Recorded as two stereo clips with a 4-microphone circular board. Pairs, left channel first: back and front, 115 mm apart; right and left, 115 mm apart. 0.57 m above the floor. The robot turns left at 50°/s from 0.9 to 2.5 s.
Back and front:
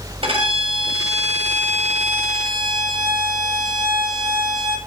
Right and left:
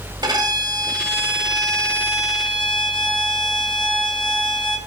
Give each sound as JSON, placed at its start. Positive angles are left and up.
{"t": 0.2, "sound": "a violin", "azimuth_deg": 35, "distance_m": 1.9}